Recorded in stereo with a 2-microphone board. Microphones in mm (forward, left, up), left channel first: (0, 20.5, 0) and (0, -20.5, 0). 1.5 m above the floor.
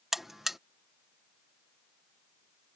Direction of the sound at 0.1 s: 10° right (ahead or behind).